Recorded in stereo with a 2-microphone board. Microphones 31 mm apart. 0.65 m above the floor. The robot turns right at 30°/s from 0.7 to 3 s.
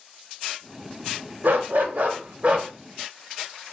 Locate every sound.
1.4 s a dog barking: 75° right, 0.6 m; by 2.7 s 35° right, 0.6 m